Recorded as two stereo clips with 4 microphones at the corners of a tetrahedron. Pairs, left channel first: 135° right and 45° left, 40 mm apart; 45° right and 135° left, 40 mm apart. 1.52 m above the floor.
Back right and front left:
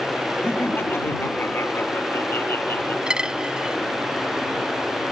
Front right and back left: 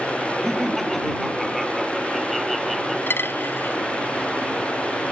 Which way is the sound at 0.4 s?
125° right.